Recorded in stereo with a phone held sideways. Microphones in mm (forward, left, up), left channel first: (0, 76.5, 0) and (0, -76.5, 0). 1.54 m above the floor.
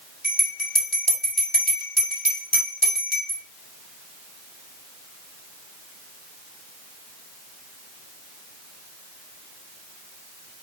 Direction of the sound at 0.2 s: 75° left (ahead or behind).